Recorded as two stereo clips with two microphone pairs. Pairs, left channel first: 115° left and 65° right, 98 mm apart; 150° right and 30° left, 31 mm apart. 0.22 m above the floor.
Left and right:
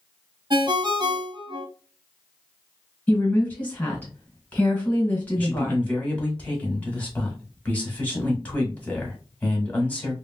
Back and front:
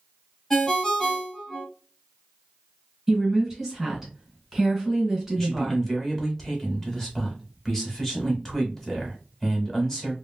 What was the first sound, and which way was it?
A ringtone, 80° right.